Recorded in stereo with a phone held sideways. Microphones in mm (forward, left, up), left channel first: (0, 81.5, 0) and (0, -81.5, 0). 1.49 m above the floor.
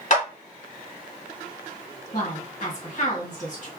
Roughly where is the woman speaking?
Left.